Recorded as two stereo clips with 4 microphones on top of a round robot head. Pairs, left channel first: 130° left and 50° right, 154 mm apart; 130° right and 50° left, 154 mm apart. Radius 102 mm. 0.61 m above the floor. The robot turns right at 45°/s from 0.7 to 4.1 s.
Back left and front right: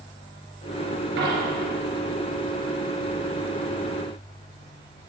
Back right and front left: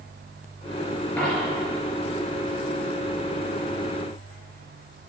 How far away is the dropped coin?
About 4 m.